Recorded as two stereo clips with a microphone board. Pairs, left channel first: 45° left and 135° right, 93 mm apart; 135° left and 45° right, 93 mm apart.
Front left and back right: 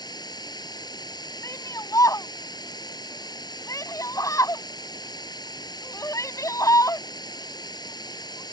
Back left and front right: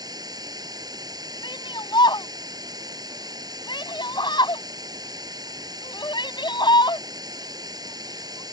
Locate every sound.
0.0 s running water: straight ahead
1.4 s a shout: 100° left